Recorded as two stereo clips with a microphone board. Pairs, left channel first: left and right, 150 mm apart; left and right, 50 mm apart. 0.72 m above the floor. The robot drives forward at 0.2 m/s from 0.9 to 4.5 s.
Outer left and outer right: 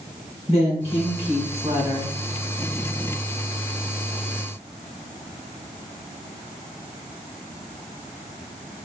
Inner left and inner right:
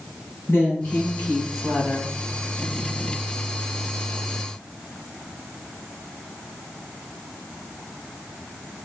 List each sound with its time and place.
0.5 s a woman speaking: 40° left (ahead or behind), 2.5 m